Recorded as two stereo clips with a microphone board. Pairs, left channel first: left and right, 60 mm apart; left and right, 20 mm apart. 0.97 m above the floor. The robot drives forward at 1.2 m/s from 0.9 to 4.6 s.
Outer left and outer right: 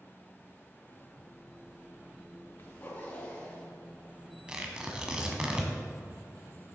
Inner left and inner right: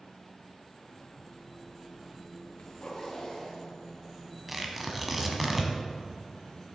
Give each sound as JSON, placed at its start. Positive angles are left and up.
{"t": 2.6, "sound": "a zipper", "side_deg": 40, "distance_m": 1.9}
{"t": 4.5, "sound": "tearing paper", "side_deg": -15, "distance_m": 1.3}